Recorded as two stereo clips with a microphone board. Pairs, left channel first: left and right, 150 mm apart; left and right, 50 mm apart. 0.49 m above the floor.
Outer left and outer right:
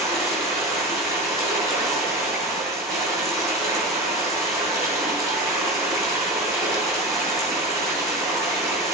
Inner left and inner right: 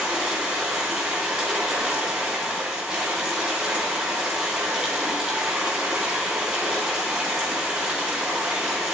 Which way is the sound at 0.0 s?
20° right (ahead or behind).